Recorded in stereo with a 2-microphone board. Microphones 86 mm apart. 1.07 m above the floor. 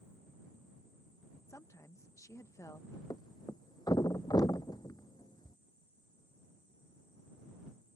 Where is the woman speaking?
35° left (ahead or behind).